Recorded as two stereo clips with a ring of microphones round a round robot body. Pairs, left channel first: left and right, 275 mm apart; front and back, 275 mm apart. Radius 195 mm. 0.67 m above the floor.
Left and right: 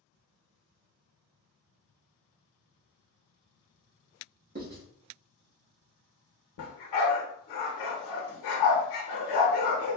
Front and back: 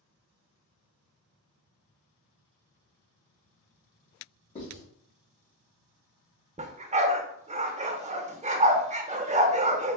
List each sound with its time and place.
4.5 s writing: 55° right, 1.4 m
6.6 s a dog barking: 110° left, 0.8 m